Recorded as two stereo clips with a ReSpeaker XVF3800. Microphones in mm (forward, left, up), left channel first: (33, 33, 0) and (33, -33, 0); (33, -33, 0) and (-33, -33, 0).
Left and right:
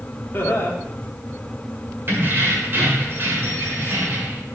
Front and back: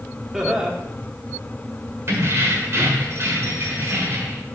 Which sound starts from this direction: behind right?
Keys jangling, at 2.1 s.